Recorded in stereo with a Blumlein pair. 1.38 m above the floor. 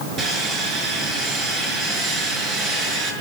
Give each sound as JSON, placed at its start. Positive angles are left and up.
{"t": 0.2, "sound": "sawing", "azimuth_deg": -30, "distance_m": 6.5}